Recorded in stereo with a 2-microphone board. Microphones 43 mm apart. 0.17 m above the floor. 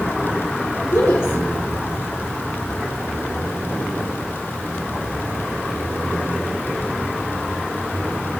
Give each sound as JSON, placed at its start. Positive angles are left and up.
{"t": 0.8, "sound": "a woman speaking", "side_deg": 65, "distance_m": 3.5}